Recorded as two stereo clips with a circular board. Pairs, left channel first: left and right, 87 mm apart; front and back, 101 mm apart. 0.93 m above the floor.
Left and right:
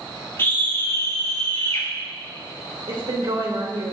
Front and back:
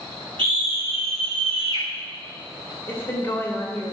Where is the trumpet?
I don't hear a trumpet.